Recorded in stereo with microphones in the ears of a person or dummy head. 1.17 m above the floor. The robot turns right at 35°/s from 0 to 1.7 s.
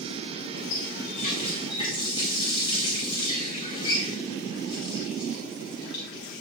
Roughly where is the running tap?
Left.